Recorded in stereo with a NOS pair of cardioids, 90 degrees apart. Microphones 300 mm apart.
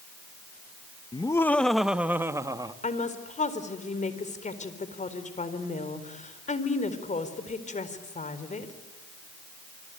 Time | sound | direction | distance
1.1 | laughter | 15° left | 1.1 m
2.8 | a woman speaking | 25° left | 4.5 m